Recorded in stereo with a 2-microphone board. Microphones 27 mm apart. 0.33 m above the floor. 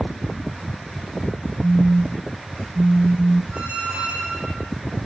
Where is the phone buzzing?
55° right (ahead or behind), 0.8 m.